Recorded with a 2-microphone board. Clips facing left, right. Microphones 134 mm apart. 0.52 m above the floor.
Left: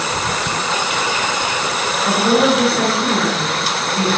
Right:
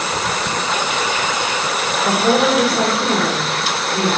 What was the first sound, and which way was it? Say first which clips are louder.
A woman speaking: left 1 dB; 20° right (ahead or behind).